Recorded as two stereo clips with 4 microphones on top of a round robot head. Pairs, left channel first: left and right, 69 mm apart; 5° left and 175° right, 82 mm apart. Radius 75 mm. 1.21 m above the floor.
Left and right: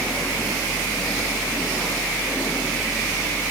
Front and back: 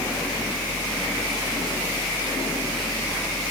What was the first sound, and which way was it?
Only background noise.